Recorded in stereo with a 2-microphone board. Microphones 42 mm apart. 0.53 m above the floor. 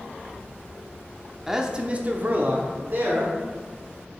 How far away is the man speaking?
About 0.8 m.